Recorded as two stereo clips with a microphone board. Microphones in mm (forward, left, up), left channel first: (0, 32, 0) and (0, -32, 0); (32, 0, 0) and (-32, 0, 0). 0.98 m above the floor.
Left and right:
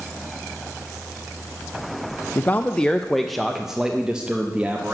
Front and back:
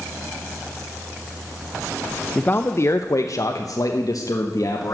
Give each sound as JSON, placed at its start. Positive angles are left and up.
{"t": 2.4, "sound": "a man speaking", "azimuth_deg": 50, "distance_m": 0.5}